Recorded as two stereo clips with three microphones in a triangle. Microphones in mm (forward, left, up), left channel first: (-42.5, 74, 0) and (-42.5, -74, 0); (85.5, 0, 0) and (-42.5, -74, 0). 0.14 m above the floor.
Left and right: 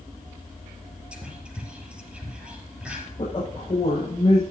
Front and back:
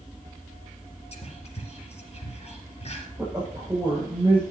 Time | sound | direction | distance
1.1 | whispering | 10° right | 4 m
3.2 | a woman speaking | 130° left | 6.5 m